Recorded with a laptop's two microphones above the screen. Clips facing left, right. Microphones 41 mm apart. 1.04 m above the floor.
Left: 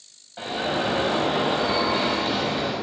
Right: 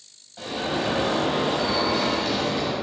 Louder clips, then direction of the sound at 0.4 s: Left 1 dB; 35° left (ahead or behind).